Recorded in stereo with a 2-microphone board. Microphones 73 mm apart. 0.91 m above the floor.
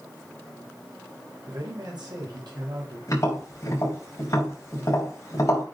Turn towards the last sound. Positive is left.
turn(degrees=40)  # may be behind; listen again after turning